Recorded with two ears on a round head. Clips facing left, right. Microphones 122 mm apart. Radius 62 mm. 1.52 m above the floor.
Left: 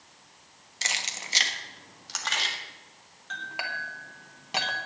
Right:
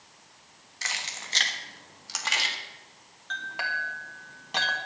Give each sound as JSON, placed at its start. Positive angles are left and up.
{"t": 0.8, "sound": "keys jangling", "side_deg": 30, "distance_m": 1.2}
{"t": 3.3, "sound": "a clink", "side_deg": 10, "distance_m": 1.4}